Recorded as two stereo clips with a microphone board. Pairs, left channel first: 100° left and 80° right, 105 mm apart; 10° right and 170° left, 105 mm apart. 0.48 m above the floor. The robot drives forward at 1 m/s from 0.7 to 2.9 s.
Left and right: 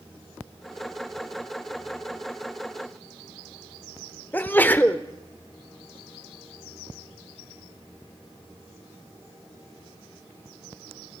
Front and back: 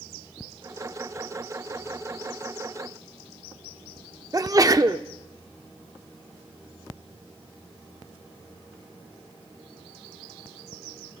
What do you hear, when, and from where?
4.3 s a sneeze: 155° left, 1.2 m